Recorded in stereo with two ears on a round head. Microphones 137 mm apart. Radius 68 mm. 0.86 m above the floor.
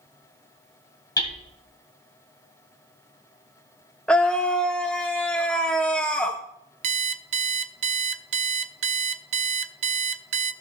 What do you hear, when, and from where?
1.2 s hammering: 25° left (ahead or behind), 2.5 m
4.1 s a scream: 5° left (ahead or behind), 0.6 m
6.8 s an alarm clock: 45° right (ahead or behind), 0.5 m